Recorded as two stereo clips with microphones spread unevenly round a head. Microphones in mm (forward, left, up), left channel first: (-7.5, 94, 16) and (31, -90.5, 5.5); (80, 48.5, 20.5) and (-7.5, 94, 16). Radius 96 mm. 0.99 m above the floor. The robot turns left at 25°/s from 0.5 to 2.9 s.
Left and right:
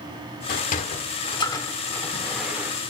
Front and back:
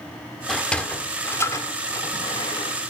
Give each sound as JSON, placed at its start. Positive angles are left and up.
{"t": 0.5, "sound": "a sliding door", "azimuth_deg": 60, "distance_m": 1.5}